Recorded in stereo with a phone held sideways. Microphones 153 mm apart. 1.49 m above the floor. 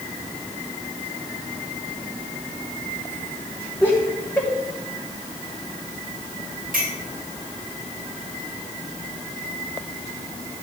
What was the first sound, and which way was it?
Laughter, 15° left (ahead or behind).